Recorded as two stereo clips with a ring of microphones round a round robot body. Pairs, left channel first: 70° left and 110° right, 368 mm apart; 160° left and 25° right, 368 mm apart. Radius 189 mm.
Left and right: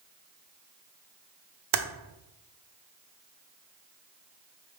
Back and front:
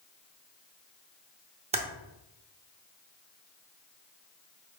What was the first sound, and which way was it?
Typing on a keyboard, 90° right.